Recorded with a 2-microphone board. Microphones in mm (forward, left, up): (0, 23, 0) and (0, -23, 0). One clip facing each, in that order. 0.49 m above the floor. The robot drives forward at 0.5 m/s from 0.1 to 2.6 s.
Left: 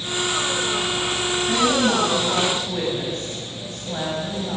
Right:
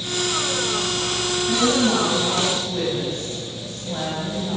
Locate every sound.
1.5 s a woman speaking: 10° left (ahead or behind), 4 m